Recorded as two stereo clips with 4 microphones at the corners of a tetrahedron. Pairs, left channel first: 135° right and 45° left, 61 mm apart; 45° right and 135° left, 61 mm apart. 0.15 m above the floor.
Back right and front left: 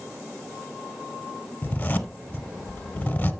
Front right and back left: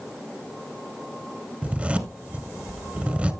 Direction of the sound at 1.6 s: 175° right.